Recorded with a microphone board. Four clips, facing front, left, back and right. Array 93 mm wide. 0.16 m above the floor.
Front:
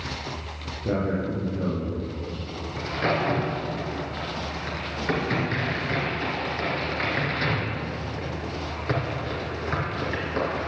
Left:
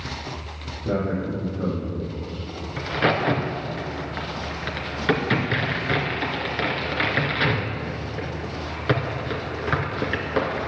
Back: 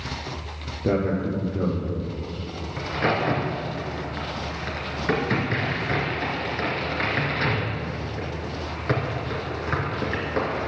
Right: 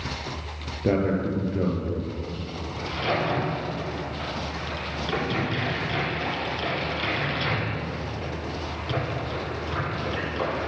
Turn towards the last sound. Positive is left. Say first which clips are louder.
# left 5 dB, back 1 dB
turn(degrees=105)